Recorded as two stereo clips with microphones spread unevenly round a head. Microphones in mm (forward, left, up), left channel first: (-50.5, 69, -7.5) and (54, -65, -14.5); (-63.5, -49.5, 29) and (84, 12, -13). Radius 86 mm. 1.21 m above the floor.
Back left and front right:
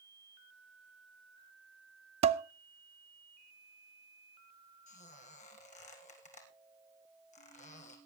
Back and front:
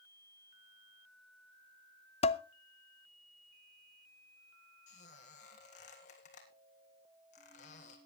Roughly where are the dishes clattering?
Right.